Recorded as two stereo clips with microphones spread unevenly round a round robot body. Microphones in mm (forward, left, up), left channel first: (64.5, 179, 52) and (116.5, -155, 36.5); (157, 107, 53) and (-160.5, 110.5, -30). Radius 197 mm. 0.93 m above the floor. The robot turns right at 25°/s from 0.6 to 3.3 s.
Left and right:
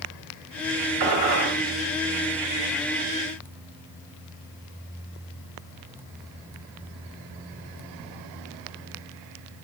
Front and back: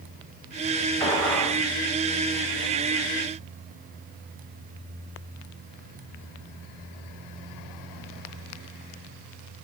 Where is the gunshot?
105° right, 1.0 m; by 1.6 s 90° right, 1.0 m.